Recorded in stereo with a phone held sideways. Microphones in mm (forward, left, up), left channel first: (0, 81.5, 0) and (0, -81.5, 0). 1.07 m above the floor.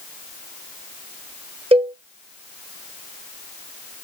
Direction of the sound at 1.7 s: 35° right (ahead or behind).